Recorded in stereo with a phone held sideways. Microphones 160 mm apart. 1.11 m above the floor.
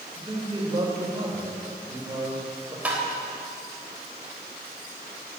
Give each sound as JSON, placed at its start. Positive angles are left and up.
{"t": 0.1, "sound": "a man speaking", "side_deg": -25, "distance_m": 4.5}
{"t": 2.9, "sound": "tapping", "side_deg": -10, "distance_m": 3.5}